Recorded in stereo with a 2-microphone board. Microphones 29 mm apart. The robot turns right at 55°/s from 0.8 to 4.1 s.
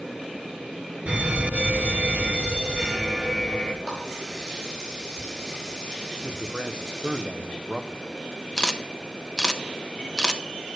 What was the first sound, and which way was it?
A fire alarm, 125° right.